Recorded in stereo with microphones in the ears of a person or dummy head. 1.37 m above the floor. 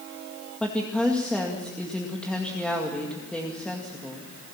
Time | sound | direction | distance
0.6 | a woman speaking | 5° left (ahead or behind) | 2 m